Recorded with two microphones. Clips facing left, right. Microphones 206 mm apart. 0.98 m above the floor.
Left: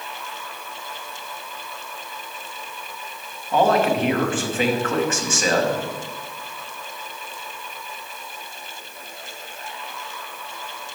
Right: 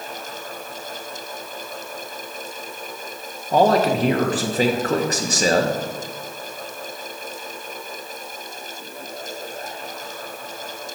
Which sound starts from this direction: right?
A man speaking, at 3.5 s.